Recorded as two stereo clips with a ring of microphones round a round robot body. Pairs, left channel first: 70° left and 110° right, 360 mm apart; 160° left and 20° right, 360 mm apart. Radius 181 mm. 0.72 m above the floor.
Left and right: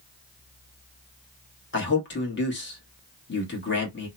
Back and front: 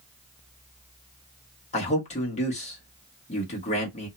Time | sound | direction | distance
1.7 | a man speaking | 100° left | 1.3 m